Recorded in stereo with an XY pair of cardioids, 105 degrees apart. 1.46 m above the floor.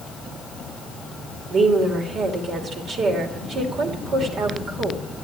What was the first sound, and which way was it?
A woman speaking, 65° right.